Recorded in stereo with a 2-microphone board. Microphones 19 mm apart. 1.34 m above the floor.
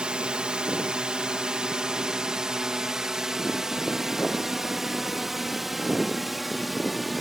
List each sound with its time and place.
0.0 s a drone: 60° right (ahead or behind); by 7.2 s 5° right (ahead or behind)